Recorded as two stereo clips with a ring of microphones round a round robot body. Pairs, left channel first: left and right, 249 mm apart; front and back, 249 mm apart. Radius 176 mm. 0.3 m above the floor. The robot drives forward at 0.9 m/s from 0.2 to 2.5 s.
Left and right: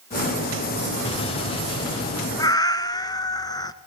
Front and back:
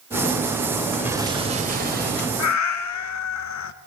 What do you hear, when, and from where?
1.0 s an explosion: 110° left, 1.4 m; by 2.3 s 160° left, 1.9 m
2.4 s a cat meowing: 15° left, 1.3 m